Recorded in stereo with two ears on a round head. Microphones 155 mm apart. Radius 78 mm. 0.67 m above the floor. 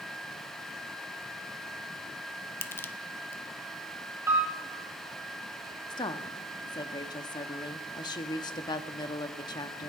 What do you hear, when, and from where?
2.6 s crushing: 15° left (ahead or behind), 0.6 m
4.3 s a piano: 15° right (ahead or behind), 4.5 m
5.9 s a woman speaking: 25° left (ahead or behind), 0.9 m